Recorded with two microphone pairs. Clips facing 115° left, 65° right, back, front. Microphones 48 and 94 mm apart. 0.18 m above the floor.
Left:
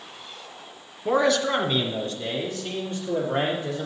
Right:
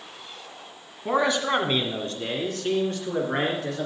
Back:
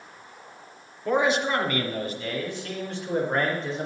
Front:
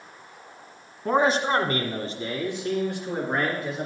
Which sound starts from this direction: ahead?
A man speaking, at 1.1 s.